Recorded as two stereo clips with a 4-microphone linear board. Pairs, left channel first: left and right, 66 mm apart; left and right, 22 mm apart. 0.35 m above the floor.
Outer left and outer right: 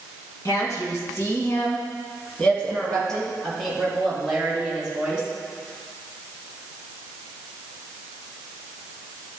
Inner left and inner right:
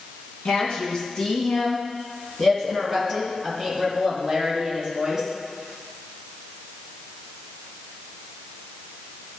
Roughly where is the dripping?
No dripping in this recording.